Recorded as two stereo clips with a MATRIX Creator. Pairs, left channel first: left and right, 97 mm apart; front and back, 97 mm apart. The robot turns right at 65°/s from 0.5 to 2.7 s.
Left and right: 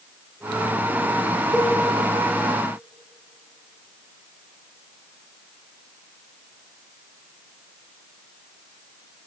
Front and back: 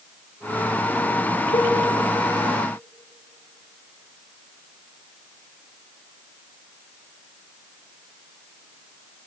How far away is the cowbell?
About 6.5 m.